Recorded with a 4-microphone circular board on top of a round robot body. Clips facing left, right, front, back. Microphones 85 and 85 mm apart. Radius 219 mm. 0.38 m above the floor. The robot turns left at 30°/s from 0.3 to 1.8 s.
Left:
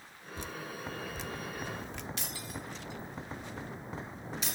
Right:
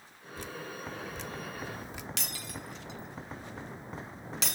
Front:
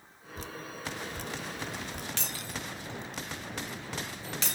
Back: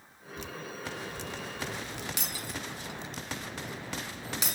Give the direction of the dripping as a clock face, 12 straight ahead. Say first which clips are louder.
Right 1 dB, back 1 dB; 11 o'clock.